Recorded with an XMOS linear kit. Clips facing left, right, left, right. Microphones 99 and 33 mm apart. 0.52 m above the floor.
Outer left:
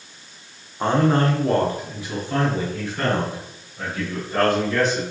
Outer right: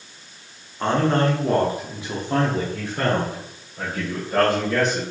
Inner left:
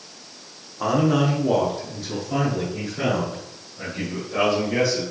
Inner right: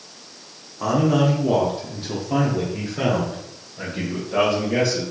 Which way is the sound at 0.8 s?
20° left (ahead or behind).